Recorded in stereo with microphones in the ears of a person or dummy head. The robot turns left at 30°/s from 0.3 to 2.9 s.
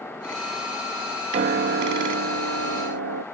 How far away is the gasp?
No gasp in this recording.